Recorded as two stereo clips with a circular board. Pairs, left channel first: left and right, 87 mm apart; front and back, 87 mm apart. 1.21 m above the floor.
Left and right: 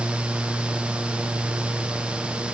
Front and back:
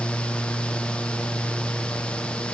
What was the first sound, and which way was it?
Only background noise.